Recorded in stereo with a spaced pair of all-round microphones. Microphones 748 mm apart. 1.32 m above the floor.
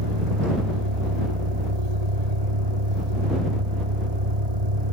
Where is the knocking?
No knocking in this recording.